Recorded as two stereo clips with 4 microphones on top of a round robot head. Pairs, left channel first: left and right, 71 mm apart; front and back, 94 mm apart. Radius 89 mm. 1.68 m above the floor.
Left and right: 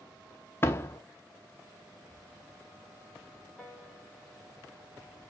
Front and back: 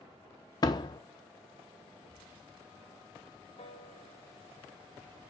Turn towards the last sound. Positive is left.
turn(degrees=15)